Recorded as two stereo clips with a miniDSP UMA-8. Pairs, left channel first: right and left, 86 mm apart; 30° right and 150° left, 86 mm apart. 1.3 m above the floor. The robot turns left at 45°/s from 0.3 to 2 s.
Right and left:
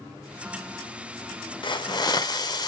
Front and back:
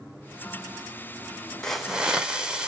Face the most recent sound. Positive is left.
turn(degrees=-130)